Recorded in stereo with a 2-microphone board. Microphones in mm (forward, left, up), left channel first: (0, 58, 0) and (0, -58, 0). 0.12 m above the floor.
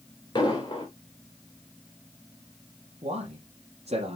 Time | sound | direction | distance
0.3 | an explosion | 40° left (ahead or behind) | 3.5 m
3.0 | a man speaking | 70° right (ahead or behind) | 3.5 m